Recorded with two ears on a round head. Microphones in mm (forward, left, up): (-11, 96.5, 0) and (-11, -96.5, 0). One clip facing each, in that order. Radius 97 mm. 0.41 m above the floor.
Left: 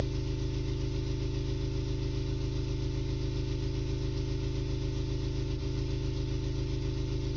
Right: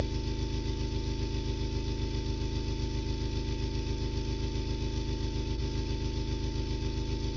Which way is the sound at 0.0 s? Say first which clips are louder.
Even; 30° right (ahead or behind).